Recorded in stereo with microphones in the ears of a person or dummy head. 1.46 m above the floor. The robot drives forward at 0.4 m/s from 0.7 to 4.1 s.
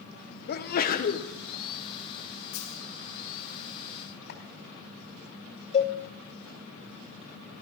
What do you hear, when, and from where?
0.5 s a sneeze: 45° left (ahead or behind), 1.1 m; by 1.3 s 35° left (ahead or behind), 1.2 m
2.5 s a dropped coin: 50° left (ahead or behind), 2.5 m
4.3 s chopping: 50° left (ahead or behind), 3.5 m
5.7 s a cowbell: 30° left (ahead or behind), 1.1 m